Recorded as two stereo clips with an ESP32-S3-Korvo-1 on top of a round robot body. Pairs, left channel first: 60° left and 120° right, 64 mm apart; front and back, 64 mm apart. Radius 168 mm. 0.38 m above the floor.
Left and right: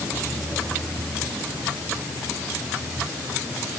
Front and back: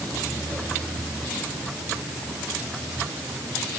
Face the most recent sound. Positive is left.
No sound to turn to.